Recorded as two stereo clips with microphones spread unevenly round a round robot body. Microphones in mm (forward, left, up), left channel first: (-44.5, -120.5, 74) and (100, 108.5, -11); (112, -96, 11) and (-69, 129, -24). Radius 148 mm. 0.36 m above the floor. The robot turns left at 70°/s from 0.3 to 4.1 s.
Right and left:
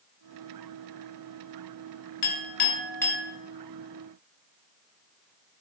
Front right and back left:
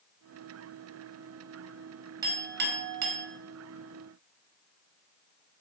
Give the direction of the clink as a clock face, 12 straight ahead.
5 o'clock.